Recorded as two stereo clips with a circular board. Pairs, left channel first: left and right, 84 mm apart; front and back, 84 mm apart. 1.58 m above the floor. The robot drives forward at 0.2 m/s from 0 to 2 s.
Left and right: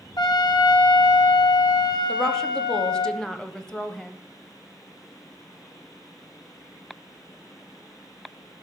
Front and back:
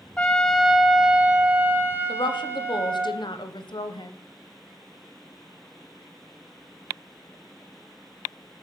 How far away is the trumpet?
About 0.6 m.